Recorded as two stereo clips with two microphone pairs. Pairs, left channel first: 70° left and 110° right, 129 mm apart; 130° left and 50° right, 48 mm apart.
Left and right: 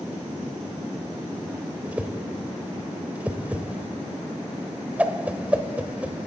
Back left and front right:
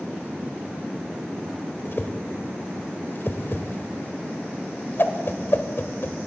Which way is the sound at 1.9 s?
170° left.